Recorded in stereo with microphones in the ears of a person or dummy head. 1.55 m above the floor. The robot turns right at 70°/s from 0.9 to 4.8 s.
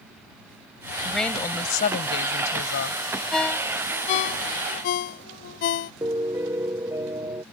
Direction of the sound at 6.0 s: 15° right (ahead or behind).